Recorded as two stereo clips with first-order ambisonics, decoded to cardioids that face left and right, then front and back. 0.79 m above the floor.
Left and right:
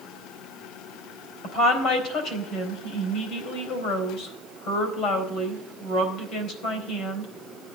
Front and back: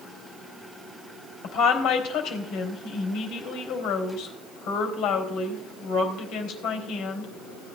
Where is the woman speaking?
45° left, 3.5 m.